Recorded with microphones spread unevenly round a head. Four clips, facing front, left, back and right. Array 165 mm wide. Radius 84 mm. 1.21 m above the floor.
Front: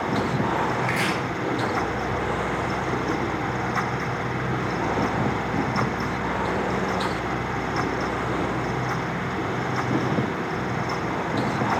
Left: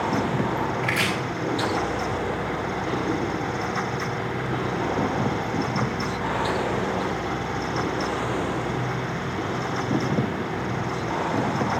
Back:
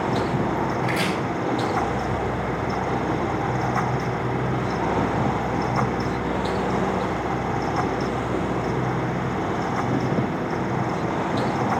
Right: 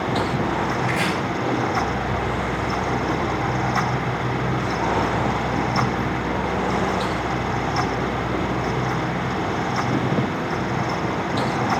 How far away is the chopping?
About 4 m.